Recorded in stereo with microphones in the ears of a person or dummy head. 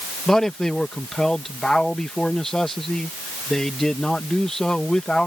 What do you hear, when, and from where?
0.3 s a man speaking: 5° left (ahead or behind)